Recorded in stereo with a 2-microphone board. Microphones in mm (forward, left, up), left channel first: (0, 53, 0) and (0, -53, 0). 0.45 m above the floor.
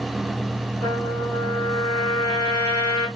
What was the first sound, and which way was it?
A trumpet, 35° left (ahead or behind).